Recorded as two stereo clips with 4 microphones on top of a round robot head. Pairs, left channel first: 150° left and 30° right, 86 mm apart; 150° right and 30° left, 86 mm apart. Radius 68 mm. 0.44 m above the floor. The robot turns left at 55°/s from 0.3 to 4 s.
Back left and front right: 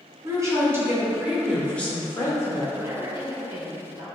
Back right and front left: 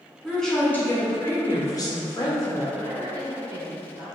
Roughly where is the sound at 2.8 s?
Ahead left.